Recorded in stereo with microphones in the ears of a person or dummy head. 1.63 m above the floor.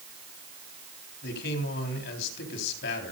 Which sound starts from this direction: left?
A man speaking, at 1.2 s.